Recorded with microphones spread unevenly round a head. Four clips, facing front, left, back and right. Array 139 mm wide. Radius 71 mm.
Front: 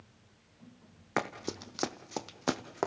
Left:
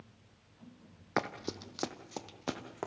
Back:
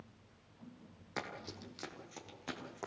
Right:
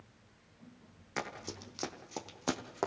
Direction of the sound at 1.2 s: 45° left.